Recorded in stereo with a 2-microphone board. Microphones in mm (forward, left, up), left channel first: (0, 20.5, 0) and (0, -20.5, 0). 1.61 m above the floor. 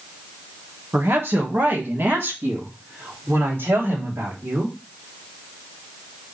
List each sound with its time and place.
0.9 s a woman speaking: 75° right (ahead or behind), 1.6 m